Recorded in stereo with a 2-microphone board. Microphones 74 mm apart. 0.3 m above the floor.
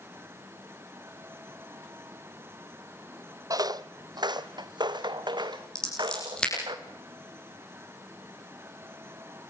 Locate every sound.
3.5 s footsteps: 55° right (ahead or behind), 0.5 m; by 6.8 s 80° right, 2 m
5.8 s scissors: 10° left (ahead or behind), 10 m